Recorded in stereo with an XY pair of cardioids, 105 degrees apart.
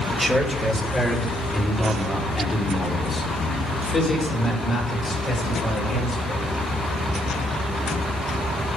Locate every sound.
0.1 s a man speaking: 10° right, 3 m; by 6.4 s 35° left, 9 m